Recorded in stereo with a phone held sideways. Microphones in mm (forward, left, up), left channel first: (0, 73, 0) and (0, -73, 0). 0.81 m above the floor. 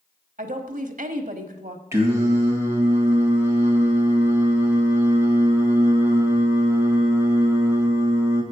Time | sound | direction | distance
0.4 | a woman speaking | 70° right (ahead or behind) | 1.2 m
1.9 | singing | 20° right (ahead or behind) | 2.0 m